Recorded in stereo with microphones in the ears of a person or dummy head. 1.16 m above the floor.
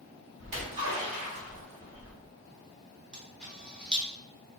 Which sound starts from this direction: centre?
A camera shutter, at 3.1 s.